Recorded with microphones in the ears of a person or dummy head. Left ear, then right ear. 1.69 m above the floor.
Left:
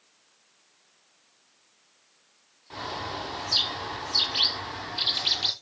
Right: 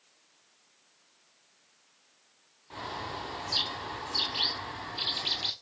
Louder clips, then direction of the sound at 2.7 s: Left 4 dB; 5° left (ahead or behind).